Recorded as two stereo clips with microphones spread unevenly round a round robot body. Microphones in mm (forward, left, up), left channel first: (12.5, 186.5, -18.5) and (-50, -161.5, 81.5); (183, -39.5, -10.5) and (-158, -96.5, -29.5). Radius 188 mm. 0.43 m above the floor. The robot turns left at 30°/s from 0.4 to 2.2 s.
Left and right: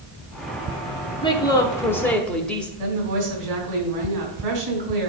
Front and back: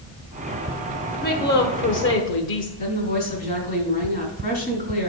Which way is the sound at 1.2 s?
55° left.